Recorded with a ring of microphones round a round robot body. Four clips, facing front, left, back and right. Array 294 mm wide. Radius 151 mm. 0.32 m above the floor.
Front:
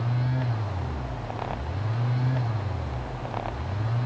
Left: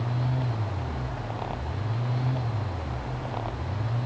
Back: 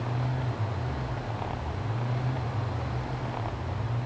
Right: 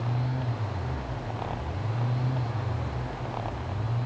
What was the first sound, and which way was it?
Only background noise.